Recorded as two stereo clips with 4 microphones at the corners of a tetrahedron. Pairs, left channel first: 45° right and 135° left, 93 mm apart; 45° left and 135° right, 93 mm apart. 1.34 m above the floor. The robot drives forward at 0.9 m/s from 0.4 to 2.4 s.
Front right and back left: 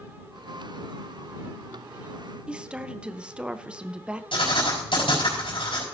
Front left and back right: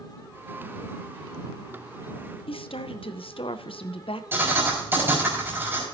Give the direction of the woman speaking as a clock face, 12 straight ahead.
10 o'clock.